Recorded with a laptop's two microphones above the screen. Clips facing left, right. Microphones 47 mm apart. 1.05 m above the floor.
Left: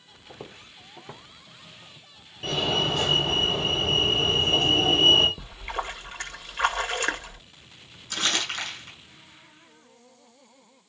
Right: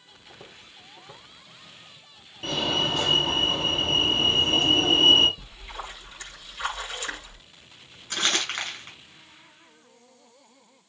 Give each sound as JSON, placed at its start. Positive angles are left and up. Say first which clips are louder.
{"t": 0.3, "sound": "footsteps", "louder": "left 4 dB", "side_deg": 35, "distance_m": 1.2}
{"t": 2.4, "sound": "a fire alarm", "louder": "even", "side_deg": -5, "distance_m": 5.0}
{"t": 5.4, "sound": "a splash", "louder": "left 6 dB", "side_deg": 55, "distance_m": 1.9}
{"t": 8.1, "sound": "crumpling", "louder": "right 1 dB", "side_deg": -30, "distance_m": 6.5}